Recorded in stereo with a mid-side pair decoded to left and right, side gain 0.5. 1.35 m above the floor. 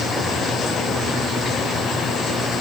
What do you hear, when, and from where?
Only background noise.